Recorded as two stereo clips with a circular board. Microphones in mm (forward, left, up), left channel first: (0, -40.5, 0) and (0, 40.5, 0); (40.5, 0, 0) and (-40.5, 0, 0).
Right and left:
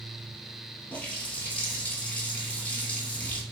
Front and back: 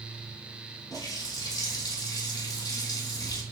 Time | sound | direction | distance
0.9 | a running tap | 25° right | 1.6 m